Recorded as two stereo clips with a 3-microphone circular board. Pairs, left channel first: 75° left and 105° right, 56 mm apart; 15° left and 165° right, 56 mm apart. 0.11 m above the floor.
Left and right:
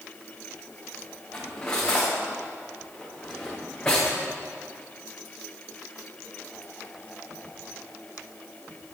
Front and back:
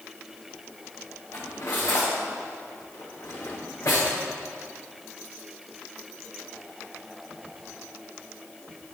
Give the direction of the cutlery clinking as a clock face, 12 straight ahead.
12 o'clock.